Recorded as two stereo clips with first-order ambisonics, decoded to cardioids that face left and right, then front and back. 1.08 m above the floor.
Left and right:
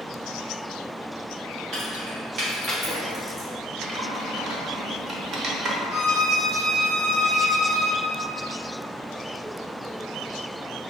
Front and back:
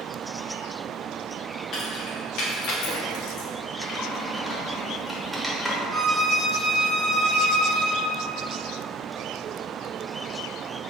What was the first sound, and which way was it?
Keys jangling, 50° right.